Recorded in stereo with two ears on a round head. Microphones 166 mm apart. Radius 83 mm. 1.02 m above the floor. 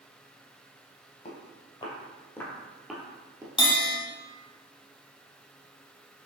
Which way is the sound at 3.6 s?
25° left (ahead or behind).